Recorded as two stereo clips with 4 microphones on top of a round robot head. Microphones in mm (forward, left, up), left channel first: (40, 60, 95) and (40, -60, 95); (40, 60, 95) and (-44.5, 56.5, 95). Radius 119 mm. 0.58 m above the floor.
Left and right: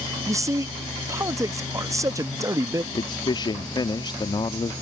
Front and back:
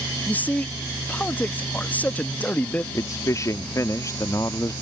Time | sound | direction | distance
0.3 | a man speaking | 50° right | ?
2.9 | a man speaking | 45° left | ?